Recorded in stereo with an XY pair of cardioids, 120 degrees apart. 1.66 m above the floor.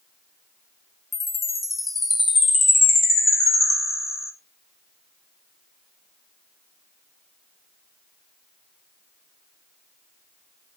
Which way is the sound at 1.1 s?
20° left.